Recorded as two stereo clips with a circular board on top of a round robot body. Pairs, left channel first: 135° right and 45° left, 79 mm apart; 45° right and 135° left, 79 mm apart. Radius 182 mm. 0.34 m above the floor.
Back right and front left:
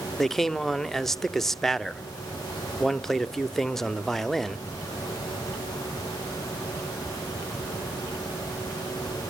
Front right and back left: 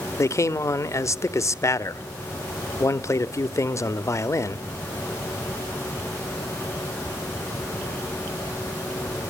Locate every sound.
0.2 s a man speaking: 55° right, 1.0 m